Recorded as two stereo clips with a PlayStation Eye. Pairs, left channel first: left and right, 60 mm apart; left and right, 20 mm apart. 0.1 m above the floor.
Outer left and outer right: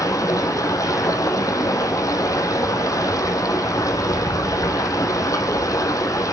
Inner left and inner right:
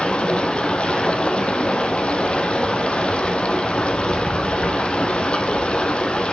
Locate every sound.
0.0 s running water: 75° left (ahead or behind), 1.4 m